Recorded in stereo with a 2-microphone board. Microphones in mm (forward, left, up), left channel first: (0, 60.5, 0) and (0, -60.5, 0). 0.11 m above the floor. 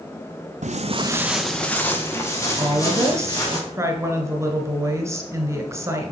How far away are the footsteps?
About 0.7 m.